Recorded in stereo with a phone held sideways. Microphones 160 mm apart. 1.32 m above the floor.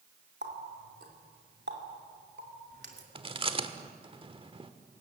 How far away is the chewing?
About 1.2 m.